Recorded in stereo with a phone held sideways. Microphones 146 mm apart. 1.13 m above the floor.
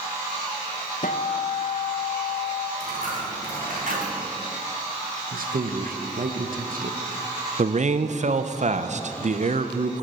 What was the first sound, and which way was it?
A guitar, 70° left (ahead or behind).